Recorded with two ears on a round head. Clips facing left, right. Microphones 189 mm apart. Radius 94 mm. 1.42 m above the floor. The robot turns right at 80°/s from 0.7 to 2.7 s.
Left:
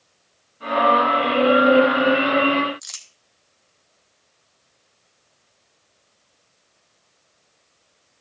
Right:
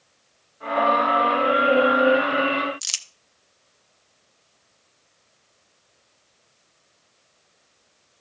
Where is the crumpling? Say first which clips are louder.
Right 3 dB; 40° right (ahead or behind), 0.6 m.